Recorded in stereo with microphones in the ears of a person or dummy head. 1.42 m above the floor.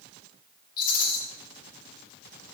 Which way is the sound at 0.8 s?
50° left (ahead or behind).